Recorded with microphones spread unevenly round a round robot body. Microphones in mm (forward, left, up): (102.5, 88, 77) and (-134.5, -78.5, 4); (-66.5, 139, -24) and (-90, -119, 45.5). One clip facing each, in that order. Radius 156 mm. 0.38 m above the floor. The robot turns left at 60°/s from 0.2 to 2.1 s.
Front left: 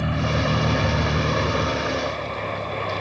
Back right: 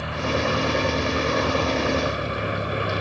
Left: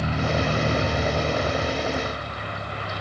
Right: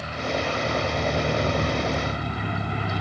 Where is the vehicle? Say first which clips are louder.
Front left 1 dB, left 3 dB; 45° left; by 3.0 s 65° right.